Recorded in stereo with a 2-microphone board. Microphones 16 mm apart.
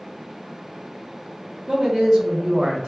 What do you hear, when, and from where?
1.7 s a man speaking: 50° right (ahead or behind), 1.0 m